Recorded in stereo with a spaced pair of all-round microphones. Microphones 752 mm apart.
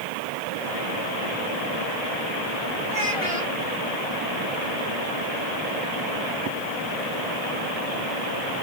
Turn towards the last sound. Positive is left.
turn(degrees=40)  # may be behind; listen again after turning